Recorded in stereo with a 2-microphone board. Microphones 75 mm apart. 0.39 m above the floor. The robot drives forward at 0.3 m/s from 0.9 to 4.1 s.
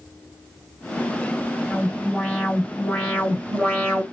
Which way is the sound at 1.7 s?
20° left (ahead or behind).